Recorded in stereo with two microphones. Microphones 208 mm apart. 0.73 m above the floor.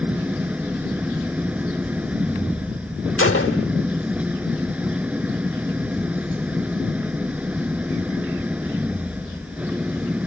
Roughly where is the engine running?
Centre.